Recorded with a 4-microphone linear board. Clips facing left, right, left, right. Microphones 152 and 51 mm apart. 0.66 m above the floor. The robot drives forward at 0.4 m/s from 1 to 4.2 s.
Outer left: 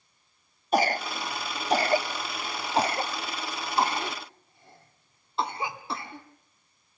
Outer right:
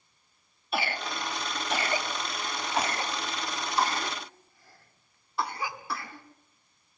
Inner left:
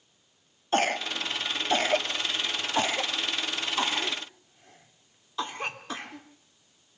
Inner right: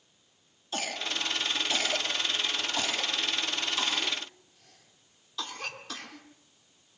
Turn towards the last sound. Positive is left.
turn(degrees=25)  # may be behind; listen again after turning